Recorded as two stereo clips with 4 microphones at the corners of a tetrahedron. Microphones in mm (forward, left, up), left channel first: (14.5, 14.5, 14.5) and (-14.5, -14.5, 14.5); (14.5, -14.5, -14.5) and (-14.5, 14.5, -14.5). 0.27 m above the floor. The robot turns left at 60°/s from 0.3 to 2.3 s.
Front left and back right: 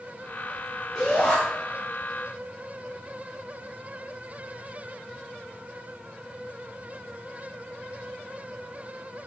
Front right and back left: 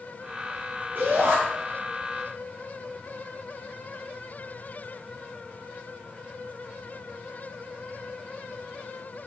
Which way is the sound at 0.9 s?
125° left.